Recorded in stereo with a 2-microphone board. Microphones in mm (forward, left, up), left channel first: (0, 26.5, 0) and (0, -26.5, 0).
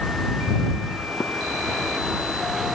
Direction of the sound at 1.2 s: 55° left (ahead or behind).